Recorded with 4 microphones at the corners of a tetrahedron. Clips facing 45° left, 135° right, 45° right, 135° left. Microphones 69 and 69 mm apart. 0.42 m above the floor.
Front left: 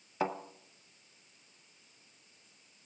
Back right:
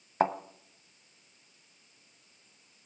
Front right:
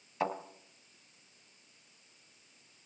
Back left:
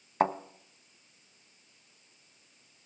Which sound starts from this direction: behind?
A thud, at 0.2 s.